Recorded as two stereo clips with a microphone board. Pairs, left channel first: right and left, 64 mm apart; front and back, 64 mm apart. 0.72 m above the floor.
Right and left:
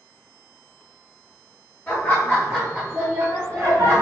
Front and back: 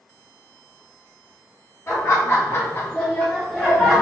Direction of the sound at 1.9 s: 35° right.